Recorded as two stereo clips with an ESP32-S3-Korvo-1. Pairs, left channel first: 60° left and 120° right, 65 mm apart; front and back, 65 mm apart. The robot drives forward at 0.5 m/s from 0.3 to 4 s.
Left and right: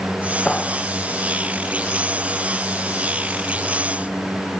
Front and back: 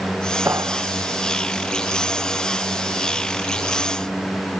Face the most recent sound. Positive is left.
turn(degrees=140)